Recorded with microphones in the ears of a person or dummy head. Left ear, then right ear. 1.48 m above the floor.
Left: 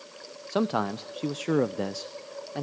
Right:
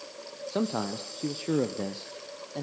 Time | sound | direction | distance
0.5 | a man speaking | 45° left (ahead or behind) | 0.7 m